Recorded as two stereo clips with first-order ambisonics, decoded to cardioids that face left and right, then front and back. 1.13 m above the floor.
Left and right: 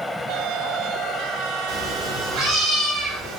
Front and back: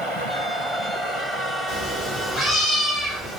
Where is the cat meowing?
45° right, 1.0 m; by 3.4 s 105° right, 1.2 m.